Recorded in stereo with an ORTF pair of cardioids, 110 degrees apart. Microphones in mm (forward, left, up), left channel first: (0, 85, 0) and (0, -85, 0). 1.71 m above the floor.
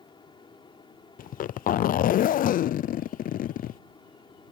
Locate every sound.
0.0 s a fan: 25° left
1.2 s a zipper: 55° left